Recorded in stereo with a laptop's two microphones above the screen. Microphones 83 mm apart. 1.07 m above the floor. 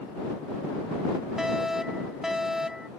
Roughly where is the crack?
No crack in this recording.